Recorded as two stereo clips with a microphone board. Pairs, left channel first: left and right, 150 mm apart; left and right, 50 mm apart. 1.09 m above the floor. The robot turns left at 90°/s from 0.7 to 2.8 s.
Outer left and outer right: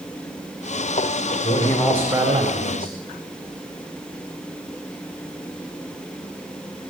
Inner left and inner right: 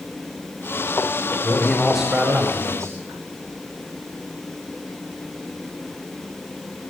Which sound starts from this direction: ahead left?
A man speaking, at 1.4 s.